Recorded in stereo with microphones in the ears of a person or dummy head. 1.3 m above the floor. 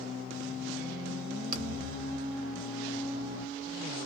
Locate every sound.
1.5 s a thud: 45° right (ahead or behind), 1.3 m